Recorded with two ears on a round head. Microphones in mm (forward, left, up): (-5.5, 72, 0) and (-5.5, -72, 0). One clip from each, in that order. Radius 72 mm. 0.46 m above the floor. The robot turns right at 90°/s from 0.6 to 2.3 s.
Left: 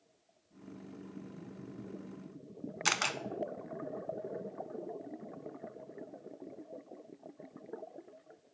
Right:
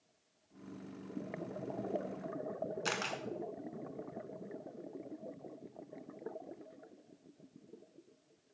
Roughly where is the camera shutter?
Left.